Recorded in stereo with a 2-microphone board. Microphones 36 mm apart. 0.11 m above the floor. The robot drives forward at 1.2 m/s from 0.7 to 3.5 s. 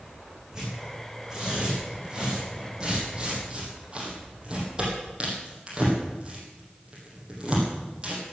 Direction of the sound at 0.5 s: 15° right (ahead or behind).